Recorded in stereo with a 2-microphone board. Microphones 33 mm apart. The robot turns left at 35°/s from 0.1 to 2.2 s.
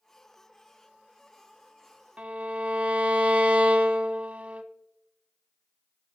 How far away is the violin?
About 0.8 m.